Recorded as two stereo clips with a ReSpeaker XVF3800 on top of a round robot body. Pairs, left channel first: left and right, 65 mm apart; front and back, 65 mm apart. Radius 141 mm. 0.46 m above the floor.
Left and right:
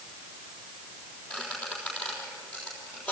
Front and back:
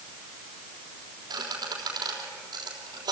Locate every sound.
1.3 s a squeak: 165° left, 3.5 m